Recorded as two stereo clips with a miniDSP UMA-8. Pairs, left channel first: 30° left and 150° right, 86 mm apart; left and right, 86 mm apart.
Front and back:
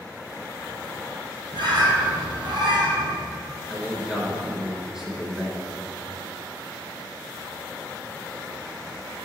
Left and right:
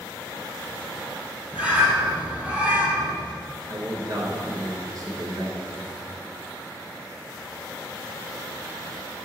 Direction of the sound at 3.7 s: 70° right.